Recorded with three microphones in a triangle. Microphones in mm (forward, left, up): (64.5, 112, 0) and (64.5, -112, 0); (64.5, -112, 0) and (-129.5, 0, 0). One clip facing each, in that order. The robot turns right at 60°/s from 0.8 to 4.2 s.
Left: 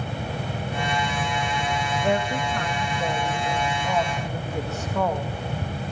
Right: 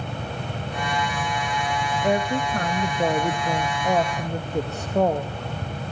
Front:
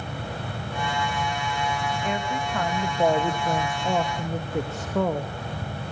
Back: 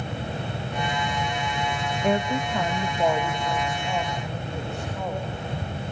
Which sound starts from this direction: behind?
A woman speaking, at 2.0 s.